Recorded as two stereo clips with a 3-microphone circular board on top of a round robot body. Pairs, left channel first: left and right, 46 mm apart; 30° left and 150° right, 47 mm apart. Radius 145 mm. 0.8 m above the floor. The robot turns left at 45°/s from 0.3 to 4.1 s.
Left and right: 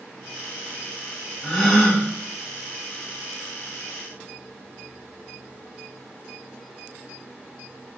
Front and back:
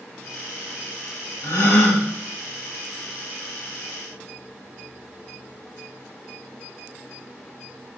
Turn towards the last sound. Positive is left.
turn(degrees=-100)